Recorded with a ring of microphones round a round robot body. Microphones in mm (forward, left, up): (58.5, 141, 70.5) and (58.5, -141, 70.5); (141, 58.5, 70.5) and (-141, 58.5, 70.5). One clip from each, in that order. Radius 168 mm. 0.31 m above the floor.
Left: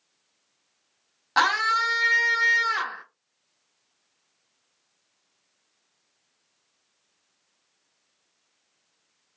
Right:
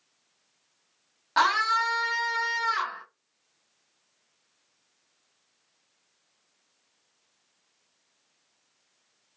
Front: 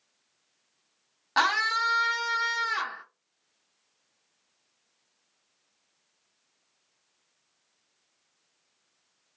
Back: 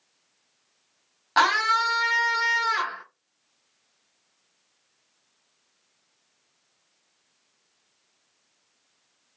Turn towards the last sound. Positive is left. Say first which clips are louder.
# left 1 dB, back 4 dB
turn(degrees=85)